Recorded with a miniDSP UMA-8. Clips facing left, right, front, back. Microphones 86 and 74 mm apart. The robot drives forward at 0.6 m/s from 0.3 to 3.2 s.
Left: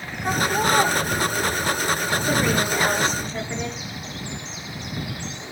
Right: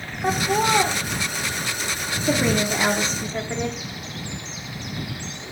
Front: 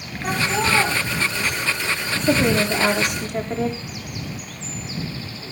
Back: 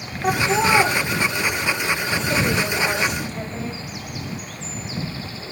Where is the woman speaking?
25° right, 8.5 m.